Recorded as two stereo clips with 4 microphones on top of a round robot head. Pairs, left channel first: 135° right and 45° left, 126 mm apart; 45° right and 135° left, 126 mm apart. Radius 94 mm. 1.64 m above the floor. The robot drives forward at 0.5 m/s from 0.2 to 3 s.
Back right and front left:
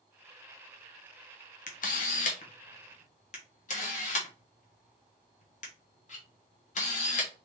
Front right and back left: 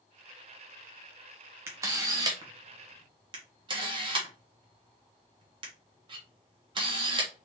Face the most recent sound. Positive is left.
turn(degrees=-170)